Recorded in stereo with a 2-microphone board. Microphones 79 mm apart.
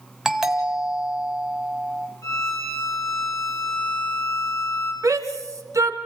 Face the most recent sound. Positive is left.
turn(degrees=-45)  # may be behind; listen again after turning